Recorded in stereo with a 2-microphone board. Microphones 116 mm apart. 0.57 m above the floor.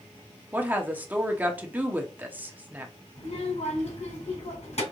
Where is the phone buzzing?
I don't hear a phone buzzing.